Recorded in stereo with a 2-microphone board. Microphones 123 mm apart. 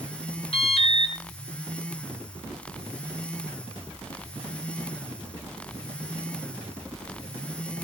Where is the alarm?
50° left (ahead or behind), 4.5 m.